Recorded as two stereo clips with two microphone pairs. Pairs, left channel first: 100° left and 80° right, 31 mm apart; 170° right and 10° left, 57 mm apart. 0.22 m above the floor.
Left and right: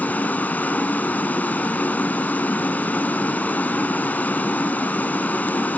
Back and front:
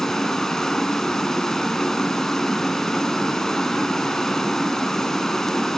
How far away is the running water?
About 0.9 m.